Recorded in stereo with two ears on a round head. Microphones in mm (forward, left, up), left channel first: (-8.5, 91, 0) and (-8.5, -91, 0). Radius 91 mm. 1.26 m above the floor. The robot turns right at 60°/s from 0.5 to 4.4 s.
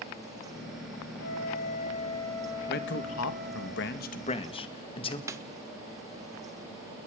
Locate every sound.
1.2 s a flute: 105° left, 4 m; by 3.7 s 105° right, 4 m
2.7 s a man speaking: 50° left, 2.0 m; by 5.2 s 150° left, 2.0 m
5.3 s a snare drum: 15° right (ahead or behind), 1.1 m